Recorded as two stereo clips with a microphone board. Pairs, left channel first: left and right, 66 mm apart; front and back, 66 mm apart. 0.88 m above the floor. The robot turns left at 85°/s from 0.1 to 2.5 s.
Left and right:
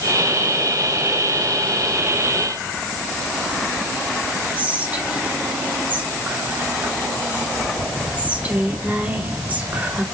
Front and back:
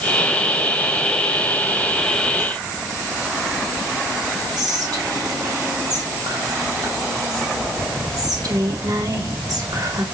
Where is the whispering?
155° right, 2.5 m.